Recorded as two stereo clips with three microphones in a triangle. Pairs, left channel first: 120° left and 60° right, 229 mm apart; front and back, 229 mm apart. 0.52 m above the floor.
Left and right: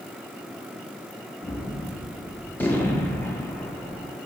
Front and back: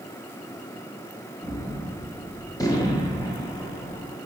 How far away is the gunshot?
About 0.5 m.